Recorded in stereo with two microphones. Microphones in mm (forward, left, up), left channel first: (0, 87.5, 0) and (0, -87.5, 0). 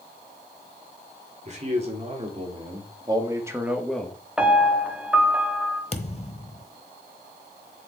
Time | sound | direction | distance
1.4 | a man speaking | 40° right (ahead or behind) | 3.5 m
4.4 | a piano | 5° right (ahead or behind) | 1.8 m
5.9 | a thud | 35° left (ahead or behind) | 1.1 m